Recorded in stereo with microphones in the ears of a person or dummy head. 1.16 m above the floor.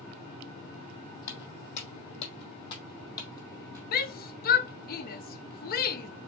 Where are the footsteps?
45° left (ahead or behind), 3 m; by 3.8 s 15° left (ahead or behind), 2.5 m.